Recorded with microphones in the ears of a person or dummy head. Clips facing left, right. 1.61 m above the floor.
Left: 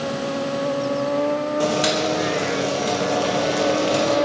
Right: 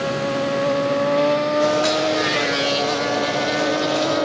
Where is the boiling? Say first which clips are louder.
Right 2 dB; 45° left (ahead or behind), 3 m.